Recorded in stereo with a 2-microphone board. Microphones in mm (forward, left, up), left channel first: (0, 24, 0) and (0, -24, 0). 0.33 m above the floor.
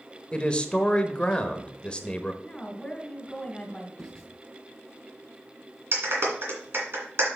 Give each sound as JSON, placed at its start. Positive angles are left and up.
{"t": 0.3, "sound": "a man speaking", "side_deg": 25, "distance_m": 0.9}
{"t": 2.4, "sound": "a woman speaking", "side_deg": 15, "distance_m": 1.6}
{"t": 4.0, "sound": "writing", "side_deg": 5, "distance_m": 3.0}
{"t": 5.9, "sound": "a clap", "side_deg": -55, "distance_m": 2.0}